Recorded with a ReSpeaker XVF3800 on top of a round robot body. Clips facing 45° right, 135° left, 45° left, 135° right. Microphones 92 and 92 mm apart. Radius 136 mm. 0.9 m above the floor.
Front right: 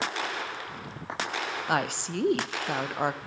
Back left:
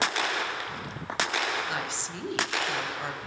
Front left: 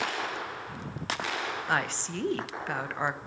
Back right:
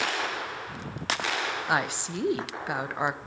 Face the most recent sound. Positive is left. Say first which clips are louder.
# front right 5 dB, back right 2 dB
turn(degrees=-60)